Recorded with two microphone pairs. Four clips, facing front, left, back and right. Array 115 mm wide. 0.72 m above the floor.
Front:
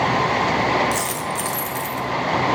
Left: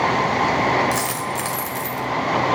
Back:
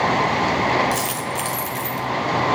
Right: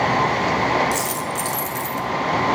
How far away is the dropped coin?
About 1.6 m.